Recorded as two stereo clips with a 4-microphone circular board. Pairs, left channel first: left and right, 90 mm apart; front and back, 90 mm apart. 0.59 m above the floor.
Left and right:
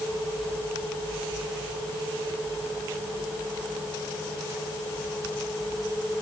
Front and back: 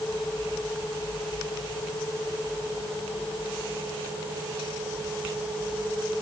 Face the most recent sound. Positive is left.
No sound to turn to.